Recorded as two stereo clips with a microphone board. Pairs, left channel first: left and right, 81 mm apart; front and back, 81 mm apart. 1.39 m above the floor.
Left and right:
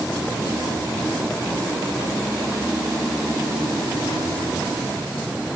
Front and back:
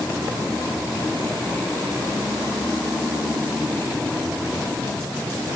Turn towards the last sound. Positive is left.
No sound to turn to.